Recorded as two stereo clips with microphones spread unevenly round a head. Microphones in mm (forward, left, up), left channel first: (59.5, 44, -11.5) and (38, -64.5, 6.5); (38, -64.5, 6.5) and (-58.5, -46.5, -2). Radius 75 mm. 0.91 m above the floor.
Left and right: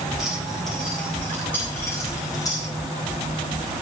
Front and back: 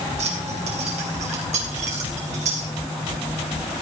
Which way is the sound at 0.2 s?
170° left.